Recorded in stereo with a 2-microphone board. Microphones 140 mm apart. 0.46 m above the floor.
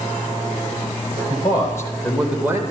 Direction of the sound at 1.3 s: 35° left (ahead or behind).